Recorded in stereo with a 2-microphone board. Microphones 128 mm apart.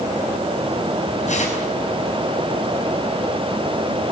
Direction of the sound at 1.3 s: 65° left (ahead or behind).